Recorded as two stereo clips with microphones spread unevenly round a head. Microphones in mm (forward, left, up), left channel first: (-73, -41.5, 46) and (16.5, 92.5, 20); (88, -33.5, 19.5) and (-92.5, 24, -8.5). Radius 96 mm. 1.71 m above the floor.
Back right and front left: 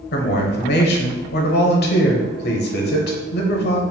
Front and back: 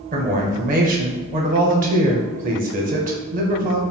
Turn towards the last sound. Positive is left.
turn(degrees=-150)